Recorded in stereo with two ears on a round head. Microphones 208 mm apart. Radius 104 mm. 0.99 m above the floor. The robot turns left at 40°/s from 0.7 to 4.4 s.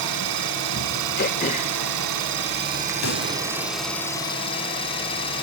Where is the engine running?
55° right, 3 m; by 5.4 s 155° left, 3 m.